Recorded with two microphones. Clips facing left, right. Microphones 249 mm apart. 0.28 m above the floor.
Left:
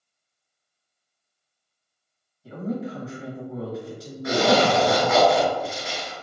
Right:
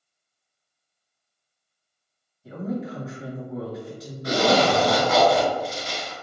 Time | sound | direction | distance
2.4 | a woman speaking | centre (ahead or behind) | 1.2 m
4.2 | a zipper | 30° right (ahead or behind) | 1.6 m